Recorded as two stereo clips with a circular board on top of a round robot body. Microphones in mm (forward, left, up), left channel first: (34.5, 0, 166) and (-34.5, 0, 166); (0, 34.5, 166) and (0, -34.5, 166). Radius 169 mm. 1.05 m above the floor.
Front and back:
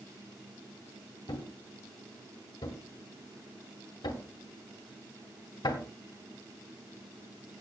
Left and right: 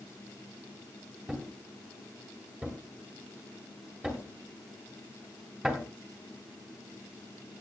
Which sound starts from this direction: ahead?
A thud, at 1.3 s.